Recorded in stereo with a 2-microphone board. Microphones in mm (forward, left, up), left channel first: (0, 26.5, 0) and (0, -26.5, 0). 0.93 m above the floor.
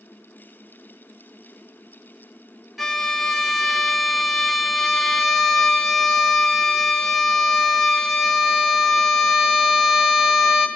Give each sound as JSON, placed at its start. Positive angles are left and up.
{"t": 2.8, "sound": "a violin", "side_deg": 0, "distance_m": 0.7}